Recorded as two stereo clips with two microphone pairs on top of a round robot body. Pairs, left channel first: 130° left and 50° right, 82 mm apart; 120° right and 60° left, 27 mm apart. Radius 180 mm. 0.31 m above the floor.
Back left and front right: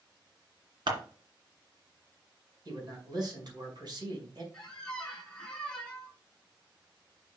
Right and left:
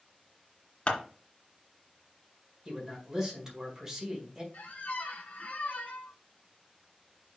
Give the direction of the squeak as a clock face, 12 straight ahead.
5 o'clock.